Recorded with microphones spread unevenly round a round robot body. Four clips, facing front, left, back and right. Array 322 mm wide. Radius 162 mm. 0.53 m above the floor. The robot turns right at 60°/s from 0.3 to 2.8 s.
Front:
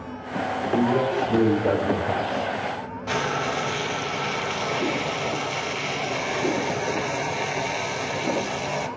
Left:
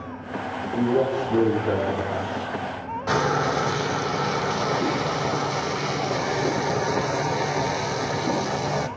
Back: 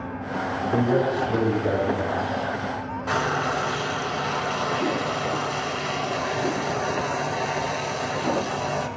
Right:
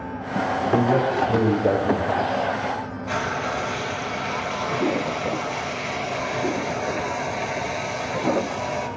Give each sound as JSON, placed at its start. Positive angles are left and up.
{"t": 0.7, "sound": "a man speaking", "azimuth_deg": -130, "distance_m": 4.0}
{"t": 3.1, "sound": "frying", "azimuth_deg": 90, "distance_m": 0.9}